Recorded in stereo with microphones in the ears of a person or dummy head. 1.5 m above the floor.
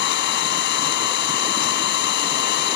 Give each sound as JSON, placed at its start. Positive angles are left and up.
{"t": 0.0, "sound": "an engine running", "side_deg": 65}